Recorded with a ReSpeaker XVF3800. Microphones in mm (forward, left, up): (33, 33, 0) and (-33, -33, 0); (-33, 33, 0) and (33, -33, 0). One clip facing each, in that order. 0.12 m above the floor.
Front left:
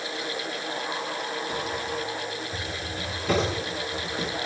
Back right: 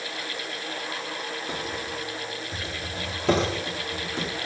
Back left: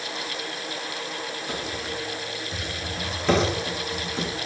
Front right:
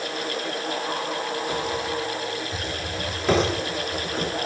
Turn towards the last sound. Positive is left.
turn(degrees=-130)